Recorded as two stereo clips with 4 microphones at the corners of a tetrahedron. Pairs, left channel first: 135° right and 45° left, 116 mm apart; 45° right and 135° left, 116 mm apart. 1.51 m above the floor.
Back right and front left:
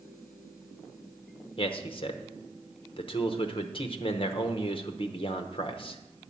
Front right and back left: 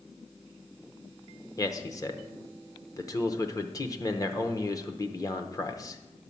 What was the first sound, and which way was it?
A man speaking, 100° right.